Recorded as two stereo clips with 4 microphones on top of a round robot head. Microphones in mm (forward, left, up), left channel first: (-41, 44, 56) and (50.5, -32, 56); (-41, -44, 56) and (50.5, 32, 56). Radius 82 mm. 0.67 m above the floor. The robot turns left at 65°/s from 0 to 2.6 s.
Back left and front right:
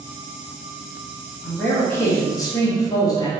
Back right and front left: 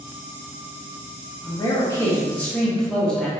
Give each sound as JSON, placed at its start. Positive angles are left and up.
{"t": 1.4, "sound": "a man speaking", "azimuth_deg": -140, "distance_m": 1.1}